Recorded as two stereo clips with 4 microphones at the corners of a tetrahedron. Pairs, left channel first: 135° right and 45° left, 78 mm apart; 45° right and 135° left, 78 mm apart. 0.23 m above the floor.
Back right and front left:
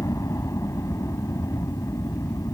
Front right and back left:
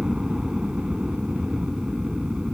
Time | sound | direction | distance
0.0 | a helicopter | 150° right | ?